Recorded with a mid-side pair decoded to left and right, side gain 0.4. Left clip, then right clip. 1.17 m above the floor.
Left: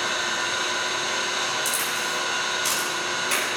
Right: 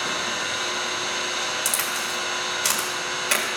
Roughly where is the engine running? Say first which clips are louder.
Left 1 dB; ahead.